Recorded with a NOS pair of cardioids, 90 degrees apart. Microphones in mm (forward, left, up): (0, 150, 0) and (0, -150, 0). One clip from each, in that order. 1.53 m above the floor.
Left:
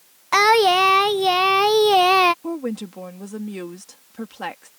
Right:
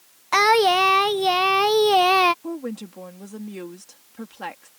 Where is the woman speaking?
20° left.